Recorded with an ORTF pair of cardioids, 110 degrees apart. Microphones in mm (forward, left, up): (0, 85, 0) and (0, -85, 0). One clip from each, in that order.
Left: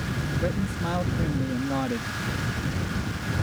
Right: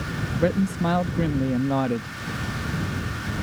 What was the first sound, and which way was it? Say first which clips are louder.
A man speaking: right 8 dB; 45° right.